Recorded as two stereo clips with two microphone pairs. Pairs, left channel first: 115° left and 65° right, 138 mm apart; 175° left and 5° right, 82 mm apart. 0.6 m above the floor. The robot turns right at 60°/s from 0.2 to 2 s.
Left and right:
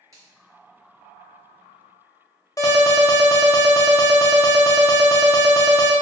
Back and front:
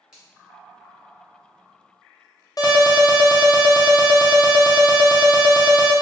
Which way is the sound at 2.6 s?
165° left.